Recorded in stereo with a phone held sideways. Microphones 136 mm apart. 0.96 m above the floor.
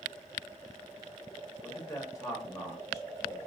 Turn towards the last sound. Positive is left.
turn(degrees=25)  # may be behind; listen again after turning